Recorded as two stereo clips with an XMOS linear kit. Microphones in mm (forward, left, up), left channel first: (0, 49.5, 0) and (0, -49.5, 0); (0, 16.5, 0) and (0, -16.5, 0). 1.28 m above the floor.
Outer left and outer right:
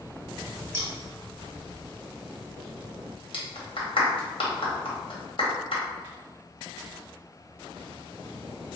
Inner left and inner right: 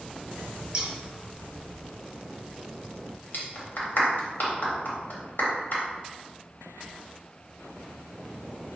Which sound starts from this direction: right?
Scissors, at 0.7 s.